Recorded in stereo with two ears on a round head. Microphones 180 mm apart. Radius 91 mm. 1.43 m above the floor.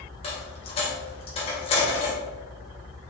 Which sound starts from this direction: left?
A dropped coin, at 0.2 s.